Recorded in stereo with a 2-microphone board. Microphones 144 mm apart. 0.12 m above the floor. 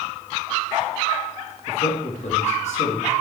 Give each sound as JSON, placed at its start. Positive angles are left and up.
{"t": 1.7, "sound": "a man speaking", "side_deg": 55, "distance_m": 3.0}